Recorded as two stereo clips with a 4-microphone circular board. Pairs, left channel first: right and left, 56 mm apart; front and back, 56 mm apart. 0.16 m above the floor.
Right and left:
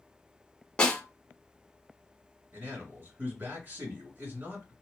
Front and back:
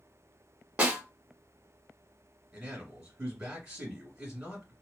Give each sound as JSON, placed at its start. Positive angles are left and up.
{"t": 0.8, "sound": "a snare drum", "azimuth_deg": -140, "distance_m": 0.8}
{"t": 2.5, "sound": "a man speaking", "azimuth_deg": 105, "distance_m": 1.7}